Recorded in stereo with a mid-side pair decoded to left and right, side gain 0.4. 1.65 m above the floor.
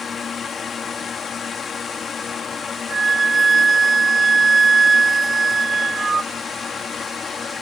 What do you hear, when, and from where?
0.0 s a fan: 50° left
2.9 s a flute: 35° right